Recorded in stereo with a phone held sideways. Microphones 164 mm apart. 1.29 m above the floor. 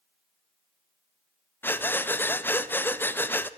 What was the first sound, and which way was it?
Breathing, 15° left (ahead or behind).